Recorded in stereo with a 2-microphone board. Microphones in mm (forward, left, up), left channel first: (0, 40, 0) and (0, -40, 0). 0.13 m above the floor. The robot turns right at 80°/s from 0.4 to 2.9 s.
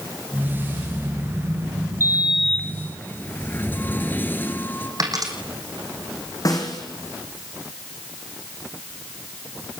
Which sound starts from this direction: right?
A dropped coin, at 5.0 s.